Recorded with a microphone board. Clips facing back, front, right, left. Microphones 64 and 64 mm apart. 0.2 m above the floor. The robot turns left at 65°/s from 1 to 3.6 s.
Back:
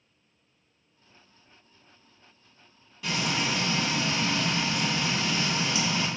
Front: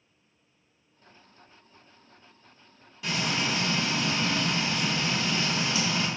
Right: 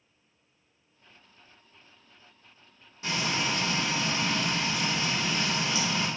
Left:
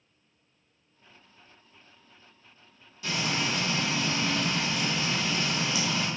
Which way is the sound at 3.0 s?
85° right.